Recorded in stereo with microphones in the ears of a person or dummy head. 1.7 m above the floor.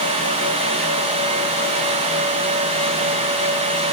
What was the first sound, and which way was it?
Only background noise.